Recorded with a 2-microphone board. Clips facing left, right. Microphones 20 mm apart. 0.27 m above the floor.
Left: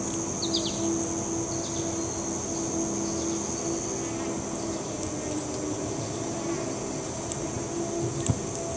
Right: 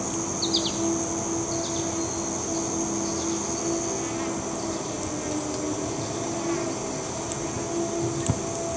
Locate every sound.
0.0 s an insect: 20° right (ahead or behind), 1.6 m